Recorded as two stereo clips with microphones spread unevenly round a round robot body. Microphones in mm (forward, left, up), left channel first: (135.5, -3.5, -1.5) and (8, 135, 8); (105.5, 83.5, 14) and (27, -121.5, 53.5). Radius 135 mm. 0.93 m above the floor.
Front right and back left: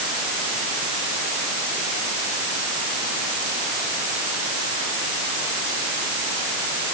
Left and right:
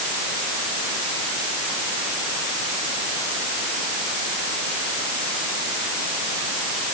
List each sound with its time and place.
Only background noise.